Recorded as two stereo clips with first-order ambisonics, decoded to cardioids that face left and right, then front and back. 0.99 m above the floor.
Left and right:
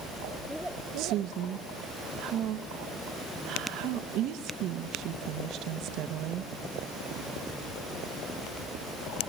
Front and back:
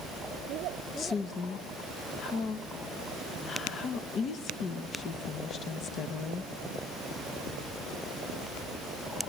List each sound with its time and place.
1.0 s a woman speaking: 55° right, 0.9 m